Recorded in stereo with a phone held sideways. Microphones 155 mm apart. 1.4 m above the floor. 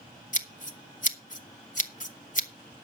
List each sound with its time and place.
0.3 s scissors: 55° left (ahead or behind), 1.2 m